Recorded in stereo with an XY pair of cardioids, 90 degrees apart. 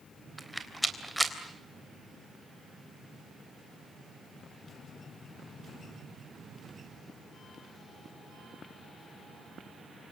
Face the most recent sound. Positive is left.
turn(degrees=0)